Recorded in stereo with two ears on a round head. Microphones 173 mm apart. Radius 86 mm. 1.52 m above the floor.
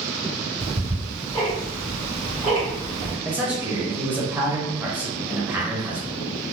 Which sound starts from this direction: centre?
A man speaking, at 3.2 s.